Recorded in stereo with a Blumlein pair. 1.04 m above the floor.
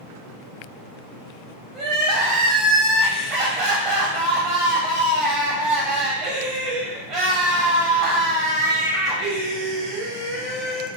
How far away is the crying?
About 1.5 m.